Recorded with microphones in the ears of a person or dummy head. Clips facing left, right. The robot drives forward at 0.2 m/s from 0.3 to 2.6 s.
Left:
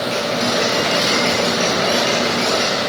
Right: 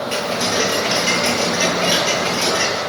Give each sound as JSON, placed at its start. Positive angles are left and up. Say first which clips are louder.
{"t": 0.1, "sound": "ticking", "louder": "left 1 dB", "side_deg": -25, "distance_m": 6.0}